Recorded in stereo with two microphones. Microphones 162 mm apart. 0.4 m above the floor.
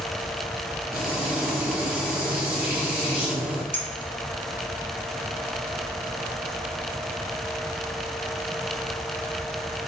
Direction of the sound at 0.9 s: 85° right.